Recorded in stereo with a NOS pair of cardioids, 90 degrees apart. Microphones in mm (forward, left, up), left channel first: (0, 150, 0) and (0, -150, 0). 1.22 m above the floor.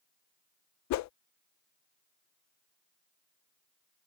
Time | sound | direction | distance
0.9 | a whoosh | 65° left | ?